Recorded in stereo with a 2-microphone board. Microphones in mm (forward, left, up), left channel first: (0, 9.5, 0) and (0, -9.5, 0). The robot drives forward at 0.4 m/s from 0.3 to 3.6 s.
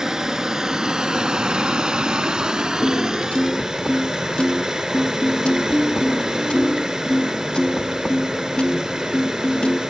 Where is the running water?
25° right (ahead or behind), 0.8 m.